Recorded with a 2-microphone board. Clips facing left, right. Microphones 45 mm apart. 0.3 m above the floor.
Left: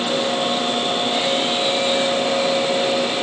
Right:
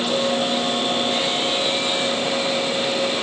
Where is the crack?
I don't hear a crack.